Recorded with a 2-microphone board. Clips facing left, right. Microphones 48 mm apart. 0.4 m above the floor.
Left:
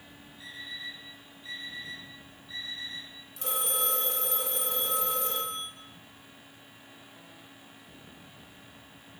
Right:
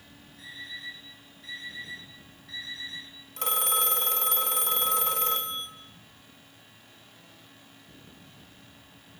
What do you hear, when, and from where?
0.4 s an alarm clock: 70° right (ahead or behind), 8.5 m
3.4 s a phone ringing: 65° right (ahead or behind), 1.8 m